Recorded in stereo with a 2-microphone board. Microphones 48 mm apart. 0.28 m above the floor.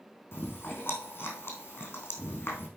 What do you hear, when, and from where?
0.3 s chewing: 45° left (ahead or behind), 3.5 m